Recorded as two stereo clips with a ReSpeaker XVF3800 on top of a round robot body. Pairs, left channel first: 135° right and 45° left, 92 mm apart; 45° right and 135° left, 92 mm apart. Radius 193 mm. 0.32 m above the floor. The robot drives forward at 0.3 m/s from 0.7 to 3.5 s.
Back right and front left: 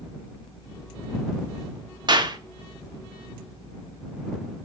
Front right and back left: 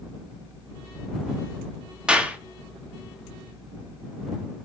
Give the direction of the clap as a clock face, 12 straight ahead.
10 o'clock.